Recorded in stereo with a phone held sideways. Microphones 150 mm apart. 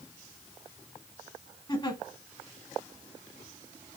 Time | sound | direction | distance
1.7 | a giggle | 35° left (ahead or behind) | 1.2 m